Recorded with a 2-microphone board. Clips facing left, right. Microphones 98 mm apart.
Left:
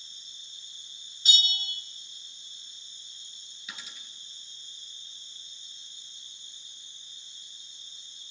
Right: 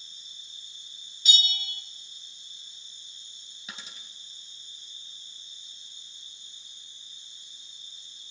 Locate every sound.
0.0 s an insect: 80° left, 4 m
1.2 s a bell: 45° left (ahead or behind), 0.8 m
3.7 s a dropped coin: 30° right (ahead or behind), 1.9 m